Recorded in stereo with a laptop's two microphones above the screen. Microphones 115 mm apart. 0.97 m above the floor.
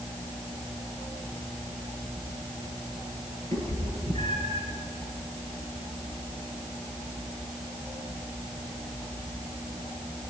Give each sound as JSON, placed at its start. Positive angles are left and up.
{"t": 3.5, "sound": "a cat meowing", "side_deg": -80, "distance_m": 6.0}